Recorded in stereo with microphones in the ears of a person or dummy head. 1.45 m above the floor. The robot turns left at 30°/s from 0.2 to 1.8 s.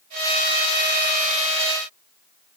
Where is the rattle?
I don't hear a rattle.